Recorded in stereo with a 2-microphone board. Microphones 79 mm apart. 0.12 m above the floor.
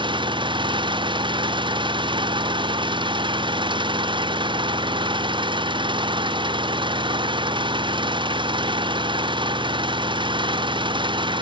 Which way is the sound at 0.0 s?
85° right.